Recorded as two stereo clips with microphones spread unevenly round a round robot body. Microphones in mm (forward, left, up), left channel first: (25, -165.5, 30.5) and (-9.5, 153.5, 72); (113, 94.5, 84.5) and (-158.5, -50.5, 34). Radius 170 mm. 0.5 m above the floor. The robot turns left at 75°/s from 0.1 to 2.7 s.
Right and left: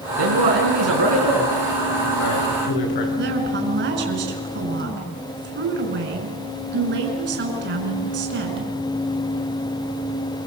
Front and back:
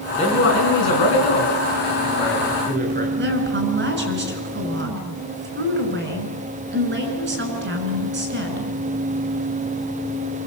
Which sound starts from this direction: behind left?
A woman speaking, at 3.2 s.